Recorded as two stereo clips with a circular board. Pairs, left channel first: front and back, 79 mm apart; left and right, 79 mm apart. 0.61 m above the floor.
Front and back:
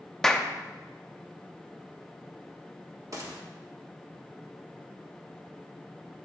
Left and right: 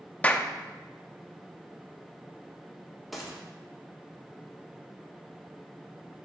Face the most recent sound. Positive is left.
turn(degrees=180)